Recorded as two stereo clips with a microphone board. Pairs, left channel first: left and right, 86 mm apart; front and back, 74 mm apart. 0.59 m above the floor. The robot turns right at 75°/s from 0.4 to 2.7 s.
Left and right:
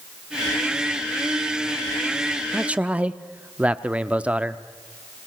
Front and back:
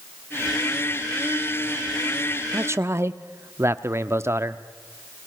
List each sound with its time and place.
2.5 s a man speaking: 170° right, 0.8 m; by 4.6 s 160° right, 0.8 m